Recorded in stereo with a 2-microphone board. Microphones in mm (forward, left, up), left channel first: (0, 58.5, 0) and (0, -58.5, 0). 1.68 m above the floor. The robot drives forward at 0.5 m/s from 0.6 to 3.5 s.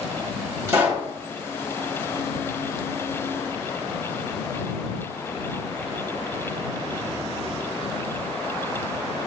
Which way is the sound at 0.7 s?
20° right (ahead or behind).